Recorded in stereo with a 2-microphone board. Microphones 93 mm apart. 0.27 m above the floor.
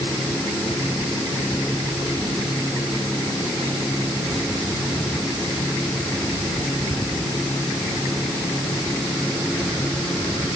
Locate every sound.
Only background noise.